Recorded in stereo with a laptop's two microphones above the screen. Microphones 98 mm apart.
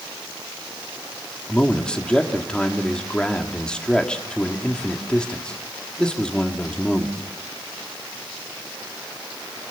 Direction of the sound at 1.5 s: 10° left (ahead or behind).